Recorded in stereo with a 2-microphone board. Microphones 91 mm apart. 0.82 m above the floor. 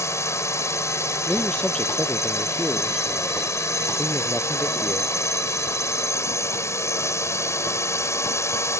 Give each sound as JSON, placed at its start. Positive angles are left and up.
{"t": 0.0, "sound": "a drone", "side_deg": 30}
{"t": 1.3, "sound": "a man speaking", "side_deg": 10}